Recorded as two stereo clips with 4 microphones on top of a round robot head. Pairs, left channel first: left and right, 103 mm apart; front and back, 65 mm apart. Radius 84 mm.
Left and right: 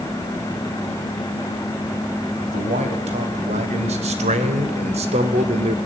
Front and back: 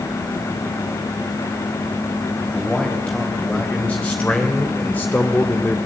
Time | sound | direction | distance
2.5 | a man speaking | 75° right | 4.5 m